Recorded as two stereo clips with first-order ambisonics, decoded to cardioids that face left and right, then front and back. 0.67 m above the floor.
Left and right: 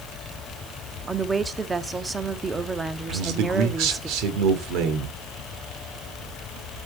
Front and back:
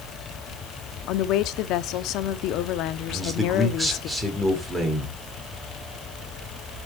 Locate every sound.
1.1 s a woman speaking: 15° right, 0.8 m
3.1 s a man speaking: 95° right, 2.5 m